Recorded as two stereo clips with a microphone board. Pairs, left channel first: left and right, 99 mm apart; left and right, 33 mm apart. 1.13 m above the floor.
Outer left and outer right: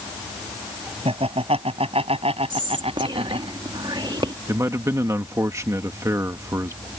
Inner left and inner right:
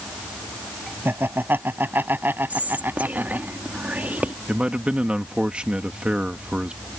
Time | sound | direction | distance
1.1 | laughter | 80° right | ?
2.5 | whispering | 50° right (ahead or behind) | ?
4.5 | a man speaking | 30° right (ahead or behind) | ?